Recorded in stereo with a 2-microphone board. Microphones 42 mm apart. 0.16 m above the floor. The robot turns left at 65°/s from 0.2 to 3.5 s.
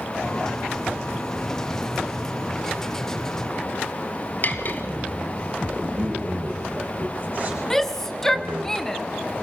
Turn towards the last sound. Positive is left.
turn(degrees=10)  # may be behind; listen again after turning